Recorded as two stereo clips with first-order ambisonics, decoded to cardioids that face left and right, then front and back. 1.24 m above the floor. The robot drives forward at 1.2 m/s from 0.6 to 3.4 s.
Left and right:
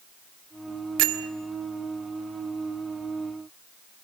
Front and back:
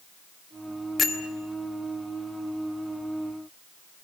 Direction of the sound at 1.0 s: 70° right.